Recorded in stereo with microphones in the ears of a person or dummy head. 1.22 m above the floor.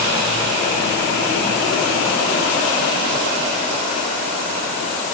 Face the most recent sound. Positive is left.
No sound to turn to.